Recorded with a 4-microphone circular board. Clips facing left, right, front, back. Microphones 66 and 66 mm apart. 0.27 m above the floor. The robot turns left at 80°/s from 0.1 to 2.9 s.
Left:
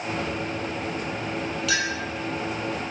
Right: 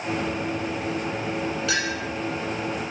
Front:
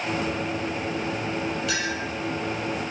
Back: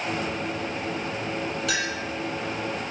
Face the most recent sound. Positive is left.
turn(degrees=110)